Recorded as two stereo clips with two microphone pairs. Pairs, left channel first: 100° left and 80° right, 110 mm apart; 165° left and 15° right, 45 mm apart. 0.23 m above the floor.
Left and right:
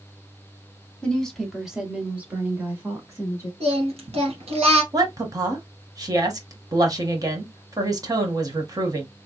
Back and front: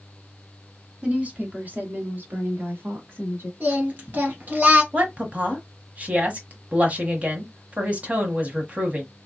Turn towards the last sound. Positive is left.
turn(degrees=-45)